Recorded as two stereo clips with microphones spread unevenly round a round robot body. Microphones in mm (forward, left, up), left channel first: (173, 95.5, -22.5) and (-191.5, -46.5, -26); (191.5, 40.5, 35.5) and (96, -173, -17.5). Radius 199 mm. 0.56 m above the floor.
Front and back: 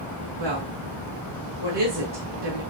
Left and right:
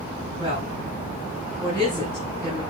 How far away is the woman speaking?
About 6 m.